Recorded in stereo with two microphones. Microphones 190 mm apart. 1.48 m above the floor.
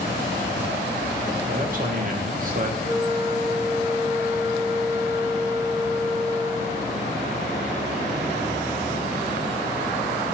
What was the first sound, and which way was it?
A man speaking, 45° right (ahead or behind).